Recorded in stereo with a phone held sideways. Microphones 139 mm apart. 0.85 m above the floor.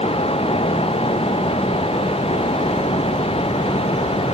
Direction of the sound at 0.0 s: 45° left (ahead or behind).